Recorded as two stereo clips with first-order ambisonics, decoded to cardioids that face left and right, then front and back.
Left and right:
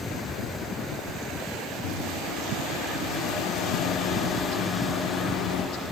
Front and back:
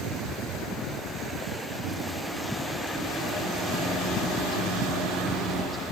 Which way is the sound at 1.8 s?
95° left.